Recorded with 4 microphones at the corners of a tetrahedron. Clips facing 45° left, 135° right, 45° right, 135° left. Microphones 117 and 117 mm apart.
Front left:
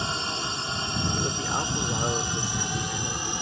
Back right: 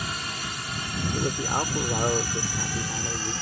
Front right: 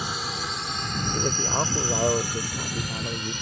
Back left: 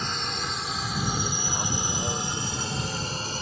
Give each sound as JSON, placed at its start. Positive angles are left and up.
{"t": 0.0, "sound": "a drone", "azimuth_deg": 30}
{"t": 1.1, "sound": "a man speaking", "azimuth_deg": -65}